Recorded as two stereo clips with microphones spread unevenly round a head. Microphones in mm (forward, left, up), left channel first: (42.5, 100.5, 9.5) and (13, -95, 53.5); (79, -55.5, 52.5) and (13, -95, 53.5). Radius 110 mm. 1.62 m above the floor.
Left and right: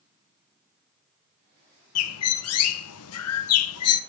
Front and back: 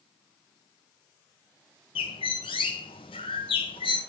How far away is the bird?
About 1.1 m.